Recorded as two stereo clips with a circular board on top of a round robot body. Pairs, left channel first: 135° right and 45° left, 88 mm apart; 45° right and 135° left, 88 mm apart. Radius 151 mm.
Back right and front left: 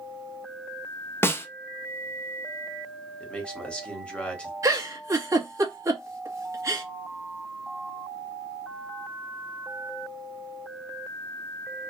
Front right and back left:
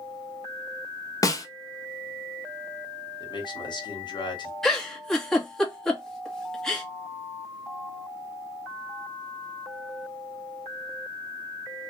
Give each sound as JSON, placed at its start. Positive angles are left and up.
{"t": 1.2, "sound": "a snare drum", "azimuth_deg": -80, "distance_m": 0.8}
{"t": 3.2, "sound": "a man speaking", "azimuth_deg": -60, "distance_m": 1.3}
{"t": 4.6, "sound": "a giggle", "azimuth_deg": 35, "distance_m": 1.3}